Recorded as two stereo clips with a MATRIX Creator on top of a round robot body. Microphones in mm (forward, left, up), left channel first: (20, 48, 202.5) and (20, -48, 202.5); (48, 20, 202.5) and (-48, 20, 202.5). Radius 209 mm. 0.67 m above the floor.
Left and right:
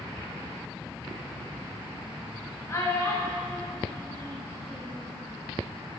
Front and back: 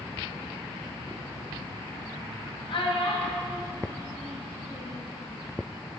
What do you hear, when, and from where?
2.7 s a child speaking: 30° left, 1.5 m; by 5.0 s 25° left, 4 m